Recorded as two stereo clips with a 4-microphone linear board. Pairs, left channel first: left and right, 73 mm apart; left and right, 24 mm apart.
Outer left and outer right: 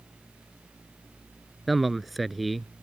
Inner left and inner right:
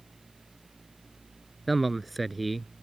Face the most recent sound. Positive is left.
turn(degrees=0)  # may be behind; listen again after turning